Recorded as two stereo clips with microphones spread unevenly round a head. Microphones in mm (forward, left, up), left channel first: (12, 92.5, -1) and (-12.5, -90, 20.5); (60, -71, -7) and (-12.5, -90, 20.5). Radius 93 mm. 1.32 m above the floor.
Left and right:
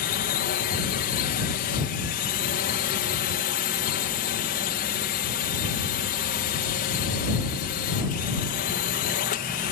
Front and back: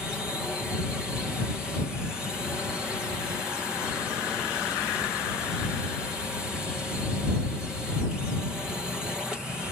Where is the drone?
100° left.